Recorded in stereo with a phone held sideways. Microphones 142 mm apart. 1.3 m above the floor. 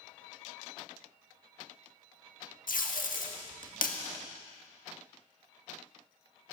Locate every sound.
2.7 s tape being pulled: 75° left (ahead or behind), 1.6 m